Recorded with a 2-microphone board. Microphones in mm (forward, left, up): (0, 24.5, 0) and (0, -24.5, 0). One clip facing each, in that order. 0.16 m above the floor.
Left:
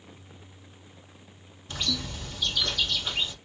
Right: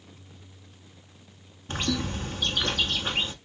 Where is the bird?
40° right (ahead or behind), 1.1 m.